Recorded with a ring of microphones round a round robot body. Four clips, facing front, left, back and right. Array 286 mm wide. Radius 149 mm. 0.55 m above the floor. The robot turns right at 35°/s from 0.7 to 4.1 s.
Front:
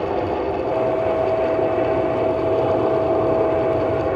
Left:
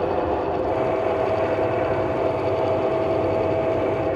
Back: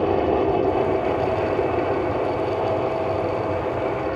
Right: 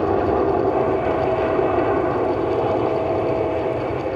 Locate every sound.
0.0 s an aircraft: 115° right; by 4.2 s 5° left